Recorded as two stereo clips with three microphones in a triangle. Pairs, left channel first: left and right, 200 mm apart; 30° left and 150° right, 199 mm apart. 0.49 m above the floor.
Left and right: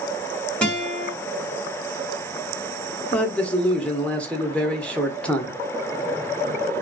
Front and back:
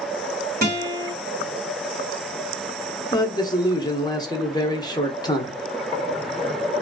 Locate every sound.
0.6 s a guitar: 175° left, 1.1 m
3.1 s a man speaking: 20° left, 0.7 m